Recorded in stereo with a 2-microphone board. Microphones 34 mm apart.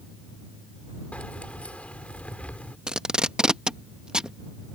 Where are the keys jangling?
45° left (ahead or behind).